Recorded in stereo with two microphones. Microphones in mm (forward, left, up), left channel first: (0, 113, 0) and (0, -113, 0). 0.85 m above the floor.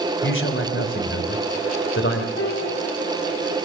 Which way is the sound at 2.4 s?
70° left (ahead or behind).